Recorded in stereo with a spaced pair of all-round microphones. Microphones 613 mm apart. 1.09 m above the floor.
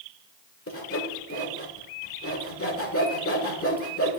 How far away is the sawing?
About 1.3 m.